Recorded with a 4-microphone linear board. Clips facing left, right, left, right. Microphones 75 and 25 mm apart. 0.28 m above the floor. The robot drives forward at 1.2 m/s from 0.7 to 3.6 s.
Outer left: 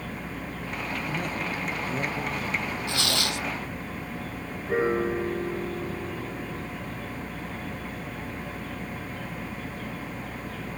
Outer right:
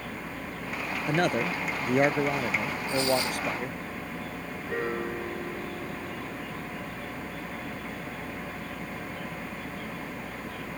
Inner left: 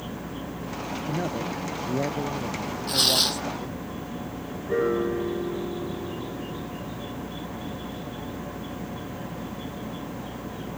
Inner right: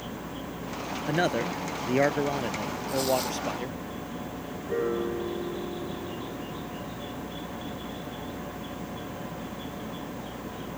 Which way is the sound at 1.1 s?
75° right (ahead or behind).